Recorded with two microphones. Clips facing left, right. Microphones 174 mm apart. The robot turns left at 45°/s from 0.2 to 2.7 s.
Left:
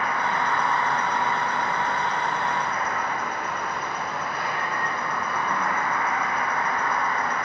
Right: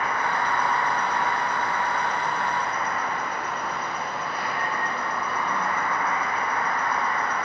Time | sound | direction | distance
0.0 | an insect | 130° right | 1.8 m